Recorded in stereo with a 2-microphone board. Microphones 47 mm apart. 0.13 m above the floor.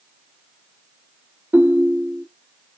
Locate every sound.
1.5 s a ringtone: 45° right (ahead or behind), 1.5 m